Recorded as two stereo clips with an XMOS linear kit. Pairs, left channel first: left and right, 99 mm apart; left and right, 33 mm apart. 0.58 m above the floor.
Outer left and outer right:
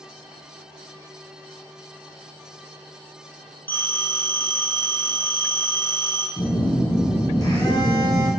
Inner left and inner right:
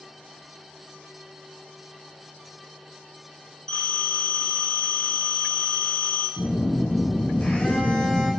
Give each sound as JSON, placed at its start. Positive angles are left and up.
{"t": 3.7, "sound": "a phone ringing", "side_deg": 20, "distance_m": 2.5}
{"t": 6.4, "sound": "a phone buzzing", "side_deg": 45, "distance_m": 2.5}